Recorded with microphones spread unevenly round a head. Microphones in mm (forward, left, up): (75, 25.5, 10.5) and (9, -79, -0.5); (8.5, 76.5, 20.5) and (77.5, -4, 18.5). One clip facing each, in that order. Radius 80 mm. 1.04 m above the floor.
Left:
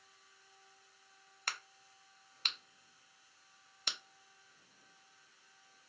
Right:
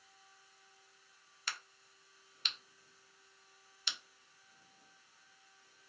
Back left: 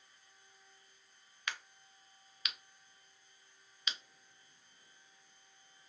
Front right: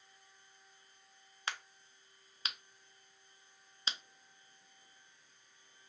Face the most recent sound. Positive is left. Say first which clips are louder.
# left 2 dB, front right 1 dB
turn(degrees=10)